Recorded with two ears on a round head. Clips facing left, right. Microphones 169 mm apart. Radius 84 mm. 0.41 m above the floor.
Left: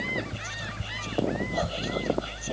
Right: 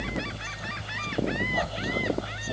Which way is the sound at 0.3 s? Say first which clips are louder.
Even; 30° left (ahead or behind).